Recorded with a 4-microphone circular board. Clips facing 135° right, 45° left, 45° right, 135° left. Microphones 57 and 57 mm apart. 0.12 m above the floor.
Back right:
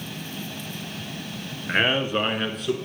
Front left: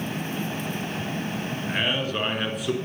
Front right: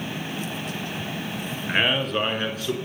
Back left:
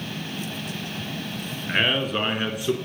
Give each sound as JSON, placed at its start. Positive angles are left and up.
{"t": 1.7, "sound": "a man speaking", "azimuth_deg": -125, "distance_m": 1.4}